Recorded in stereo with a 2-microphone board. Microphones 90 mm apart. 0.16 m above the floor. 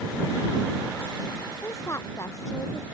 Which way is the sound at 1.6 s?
30° left (ahead or behind).